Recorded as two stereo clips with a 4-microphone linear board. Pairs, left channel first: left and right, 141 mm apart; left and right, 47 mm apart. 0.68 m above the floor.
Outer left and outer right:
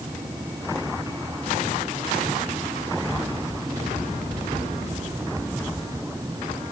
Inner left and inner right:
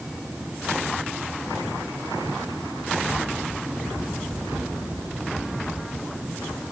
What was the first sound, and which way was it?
Only background noise.